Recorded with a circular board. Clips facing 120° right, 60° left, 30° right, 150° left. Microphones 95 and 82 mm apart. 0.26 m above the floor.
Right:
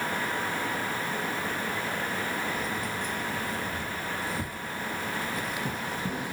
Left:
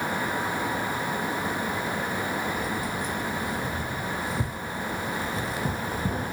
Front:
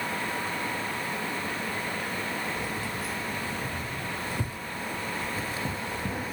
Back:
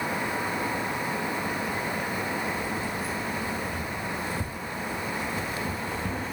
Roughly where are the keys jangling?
Ahead.